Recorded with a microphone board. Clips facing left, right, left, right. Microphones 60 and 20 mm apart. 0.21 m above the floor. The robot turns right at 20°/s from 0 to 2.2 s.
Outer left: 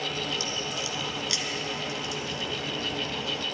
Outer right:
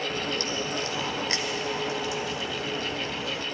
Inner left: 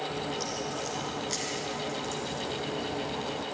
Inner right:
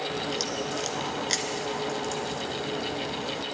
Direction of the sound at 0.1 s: 70° right.